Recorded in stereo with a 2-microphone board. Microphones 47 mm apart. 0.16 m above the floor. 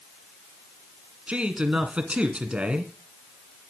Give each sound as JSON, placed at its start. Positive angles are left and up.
{"t": 1.3, "sound": "a man speaking", "side_deg": -25, "distance_m": 1.9}